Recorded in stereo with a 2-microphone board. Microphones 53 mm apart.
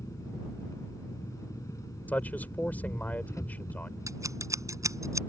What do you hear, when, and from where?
0.0 s an engine running: 80° left
2.1 s a man speaking: 35° left (ahead or behind)
4.1 s scissors: 75° right (ahead or behind)